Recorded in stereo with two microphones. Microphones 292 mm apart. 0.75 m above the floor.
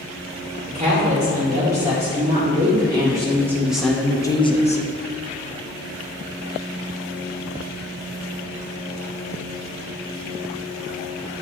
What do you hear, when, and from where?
0.7 s a woman speaking: 25° right (ahead or behind), 2 m; by 4.8 s 25° left (ahead or behind), 0.7 m